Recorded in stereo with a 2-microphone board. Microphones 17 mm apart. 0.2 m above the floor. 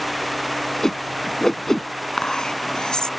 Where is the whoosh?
30° left (ahead or behind).